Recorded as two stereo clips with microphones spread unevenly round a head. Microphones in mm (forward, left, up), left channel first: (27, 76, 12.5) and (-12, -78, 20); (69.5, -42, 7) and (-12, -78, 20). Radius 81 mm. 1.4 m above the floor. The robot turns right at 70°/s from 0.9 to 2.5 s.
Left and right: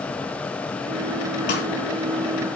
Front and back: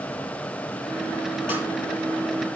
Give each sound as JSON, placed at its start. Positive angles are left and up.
{"t": 1.5, "sound": "a snare drum", "azimuth_deg": 65, "distance_m": 4.5}